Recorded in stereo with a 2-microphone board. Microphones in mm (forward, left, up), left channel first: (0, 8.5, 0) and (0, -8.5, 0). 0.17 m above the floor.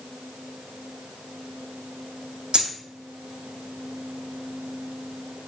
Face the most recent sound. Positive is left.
turn(degrees=-80)